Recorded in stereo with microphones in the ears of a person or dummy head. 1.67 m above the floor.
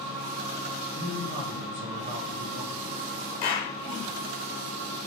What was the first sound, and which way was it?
A man speaking, 35° right (ahead or behind).